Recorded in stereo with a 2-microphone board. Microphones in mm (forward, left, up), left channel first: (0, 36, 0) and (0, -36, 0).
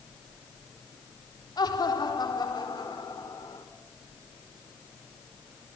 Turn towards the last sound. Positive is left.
turn(degrees=80)